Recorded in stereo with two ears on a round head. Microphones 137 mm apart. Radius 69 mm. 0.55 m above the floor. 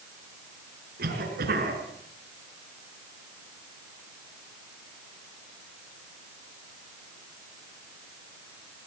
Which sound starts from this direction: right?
A cough, at 1.0 s.